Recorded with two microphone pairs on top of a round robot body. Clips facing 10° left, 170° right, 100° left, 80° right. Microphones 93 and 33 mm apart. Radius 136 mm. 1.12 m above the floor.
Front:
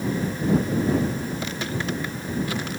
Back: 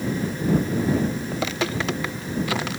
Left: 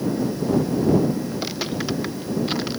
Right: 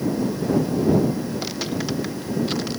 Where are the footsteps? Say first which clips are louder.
Back 3 dB, even; 175° right; by 2.8 s straight behind.